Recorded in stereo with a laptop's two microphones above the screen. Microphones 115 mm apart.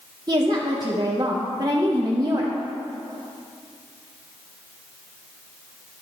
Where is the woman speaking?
35° right (ahead or behind), 0.8 m.